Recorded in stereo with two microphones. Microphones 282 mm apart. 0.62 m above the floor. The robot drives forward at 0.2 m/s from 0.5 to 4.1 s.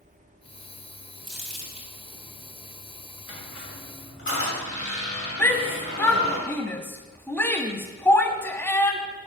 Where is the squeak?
50° left (ahead or behind), 2 m; by 6.4 s 45° left (ahead or behind), 2.5 m.